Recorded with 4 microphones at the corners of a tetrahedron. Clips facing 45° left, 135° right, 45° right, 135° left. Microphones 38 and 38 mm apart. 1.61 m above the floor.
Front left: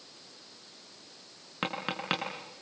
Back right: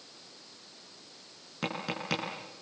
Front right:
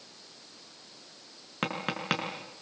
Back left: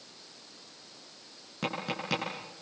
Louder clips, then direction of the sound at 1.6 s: Front left 2 dB, front right 2 dB; 10° right.